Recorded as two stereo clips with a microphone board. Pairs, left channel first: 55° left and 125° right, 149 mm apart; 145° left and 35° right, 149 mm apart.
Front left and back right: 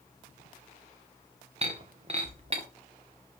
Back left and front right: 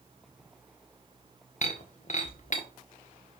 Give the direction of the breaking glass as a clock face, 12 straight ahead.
6 o'clock.